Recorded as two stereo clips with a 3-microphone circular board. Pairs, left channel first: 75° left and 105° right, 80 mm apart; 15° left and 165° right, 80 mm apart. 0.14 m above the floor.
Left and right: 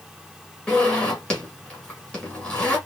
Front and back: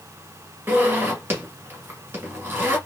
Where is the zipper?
145° left, 1.7 m.